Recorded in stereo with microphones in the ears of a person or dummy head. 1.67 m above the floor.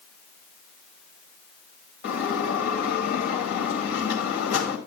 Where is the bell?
35° left (ahead or behind), 2.0 m.